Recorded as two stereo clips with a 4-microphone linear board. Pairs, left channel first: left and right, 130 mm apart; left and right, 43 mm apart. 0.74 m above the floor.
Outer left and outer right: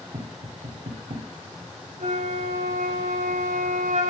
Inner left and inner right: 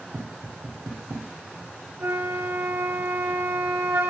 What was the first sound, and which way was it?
Tapping, 75° right (ahead or behind).